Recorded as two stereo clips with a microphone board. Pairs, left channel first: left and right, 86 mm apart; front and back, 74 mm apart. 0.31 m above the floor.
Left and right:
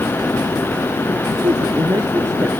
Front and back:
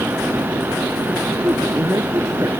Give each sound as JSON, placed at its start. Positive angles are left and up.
{"t": 1.4, "sound": "a woman speaking", "azimuth_deg": -130}